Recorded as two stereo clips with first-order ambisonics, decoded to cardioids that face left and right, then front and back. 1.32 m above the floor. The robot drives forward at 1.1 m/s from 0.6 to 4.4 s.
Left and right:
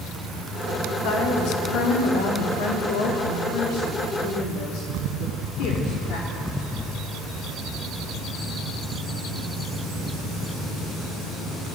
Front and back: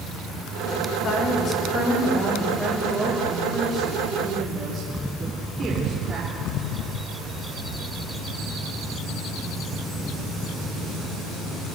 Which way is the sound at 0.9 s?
55° left.